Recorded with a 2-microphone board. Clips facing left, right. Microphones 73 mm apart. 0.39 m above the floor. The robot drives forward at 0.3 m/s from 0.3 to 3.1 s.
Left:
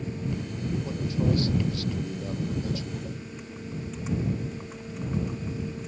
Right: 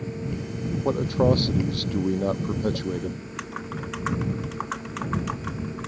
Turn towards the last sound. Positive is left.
turn(degrees=-85)